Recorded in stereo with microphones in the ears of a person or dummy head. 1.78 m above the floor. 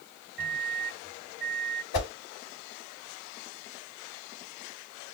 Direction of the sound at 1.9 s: 55° left (ahead or behind).